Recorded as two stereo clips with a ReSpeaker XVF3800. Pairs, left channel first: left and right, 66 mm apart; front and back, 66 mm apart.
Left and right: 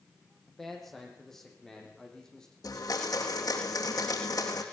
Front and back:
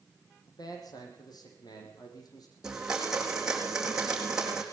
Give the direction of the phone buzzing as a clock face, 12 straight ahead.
No phone buzzing in this recording.